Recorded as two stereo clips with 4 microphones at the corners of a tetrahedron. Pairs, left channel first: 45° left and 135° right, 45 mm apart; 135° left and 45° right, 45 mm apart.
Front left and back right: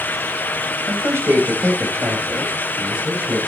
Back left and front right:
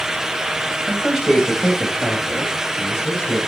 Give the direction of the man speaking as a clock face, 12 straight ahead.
4 o'clock.